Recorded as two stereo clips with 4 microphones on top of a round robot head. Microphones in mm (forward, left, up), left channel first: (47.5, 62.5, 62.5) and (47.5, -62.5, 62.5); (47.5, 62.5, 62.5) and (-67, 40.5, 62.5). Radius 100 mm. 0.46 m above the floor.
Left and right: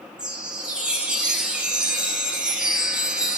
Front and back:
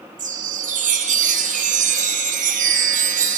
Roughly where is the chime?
Behind.